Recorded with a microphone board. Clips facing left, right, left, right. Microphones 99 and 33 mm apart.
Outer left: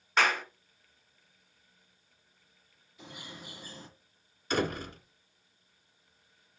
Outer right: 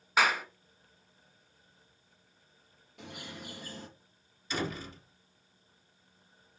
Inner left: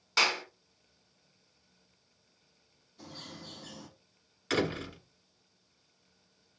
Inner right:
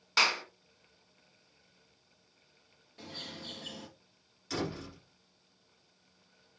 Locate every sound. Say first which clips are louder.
0.2 s a clap: even, even; 5° right (ahead or behind), 1.5 m
3.0 s a bird: outer right 2 dB, inner right 3 dB; 70° right (ahead or behind), 4 m
4.5 s a door slam: outer left 5 dB, inner left 6 dB; 55° left (ahead or behind), 1.8 m